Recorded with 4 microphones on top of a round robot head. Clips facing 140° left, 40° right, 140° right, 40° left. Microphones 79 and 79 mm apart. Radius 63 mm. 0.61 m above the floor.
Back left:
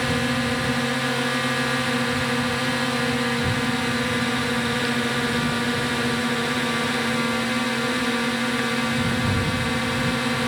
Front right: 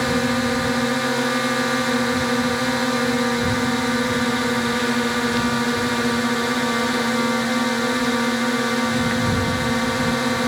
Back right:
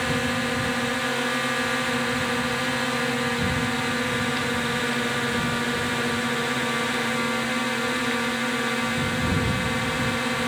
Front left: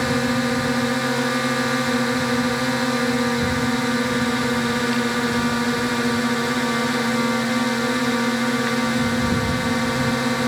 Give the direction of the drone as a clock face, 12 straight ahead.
12 o'clock.